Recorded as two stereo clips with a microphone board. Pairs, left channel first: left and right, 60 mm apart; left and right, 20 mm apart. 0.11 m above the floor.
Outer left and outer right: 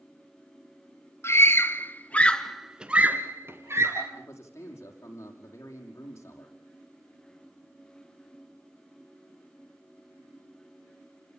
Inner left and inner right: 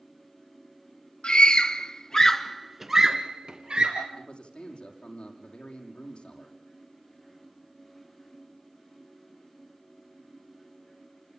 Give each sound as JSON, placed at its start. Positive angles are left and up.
{"t": 1.2, "sound": "a scream", "side_deg": 45, "distance_m": 2.5}
{"t": 4.2, "sound": "a man speaking", "side_deg": 50, "distance_m": 5.5}